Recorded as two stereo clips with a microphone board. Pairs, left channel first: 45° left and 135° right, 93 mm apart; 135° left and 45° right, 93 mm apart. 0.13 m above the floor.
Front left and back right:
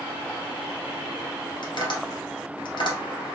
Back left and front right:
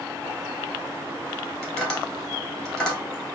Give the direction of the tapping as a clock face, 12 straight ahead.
10 o'clock.